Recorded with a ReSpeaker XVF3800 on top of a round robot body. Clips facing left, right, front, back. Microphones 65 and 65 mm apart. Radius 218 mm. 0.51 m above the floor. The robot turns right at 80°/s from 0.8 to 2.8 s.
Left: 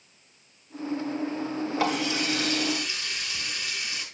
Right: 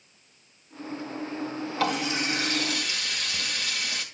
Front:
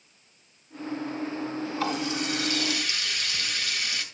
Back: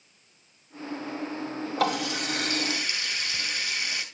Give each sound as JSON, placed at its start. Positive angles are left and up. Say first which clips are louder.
{"t": 1.8, "sound": "a running tap", "louder": "right 1 dB, back 3 dB", "azimuth_deg": 165, "distance_m": 2.5}